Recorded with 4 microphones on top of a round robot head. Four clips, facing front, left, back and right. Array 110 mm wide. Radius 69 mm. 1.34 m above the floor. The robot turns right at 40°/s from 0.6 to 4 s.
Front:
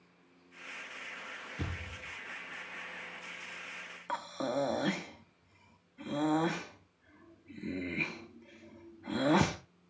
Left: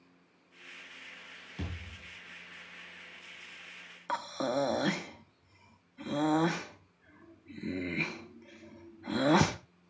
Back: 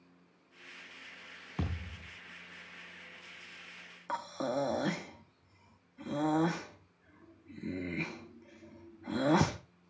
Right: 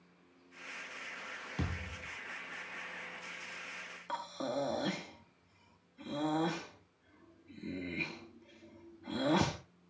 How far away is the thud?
About 4.5 m.